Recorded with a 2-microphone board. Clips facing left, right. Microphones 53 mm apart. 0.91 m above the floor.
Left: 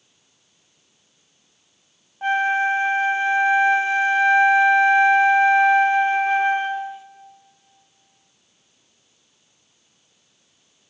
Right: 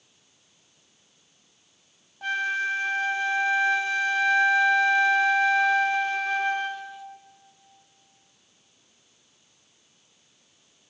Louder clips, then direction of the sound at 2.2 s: Left 7 dB; 30° left (ahead or behind).